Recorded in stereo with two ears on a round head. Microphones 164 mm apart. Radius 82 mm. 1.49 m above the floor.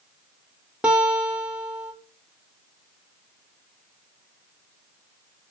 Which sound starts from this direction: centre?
A guitar, at 0.8 s.